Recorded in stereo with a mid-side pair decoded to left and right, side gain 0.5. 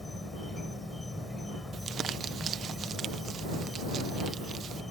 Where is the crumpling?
50° right.